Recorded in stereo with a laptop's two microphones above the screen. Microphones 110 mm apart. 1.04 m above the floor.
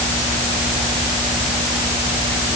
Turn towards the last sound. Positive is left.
No sound to turn to.